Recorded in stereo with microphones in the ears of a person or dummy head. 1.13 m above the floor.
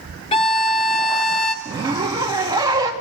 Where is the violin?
30° left (ahead or behind), 0.8 m.